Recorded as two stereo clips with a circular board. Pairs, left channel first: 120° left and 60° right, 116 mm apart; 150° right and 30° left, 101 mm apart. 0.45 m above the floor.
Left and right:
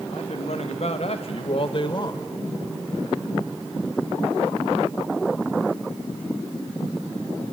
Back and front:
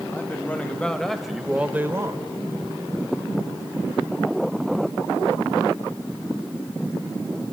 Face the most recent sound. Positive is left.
turn(degrees=75)